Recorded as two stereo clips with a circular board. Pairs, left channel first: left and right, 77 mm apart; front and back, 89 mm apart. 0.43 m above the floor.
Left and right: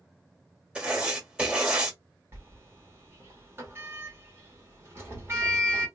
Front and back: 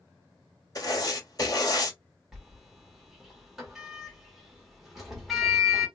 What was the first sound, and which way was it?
Writing, 20° right.